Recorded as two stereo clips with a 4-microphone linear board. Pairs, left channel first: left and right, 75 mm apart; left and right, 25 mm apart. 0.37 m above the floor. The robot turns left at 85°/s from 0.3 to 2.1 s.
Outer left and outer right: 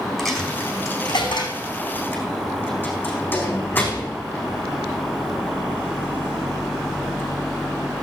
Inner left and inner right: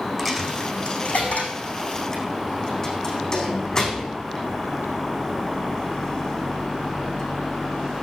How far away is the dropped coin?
About 4 m.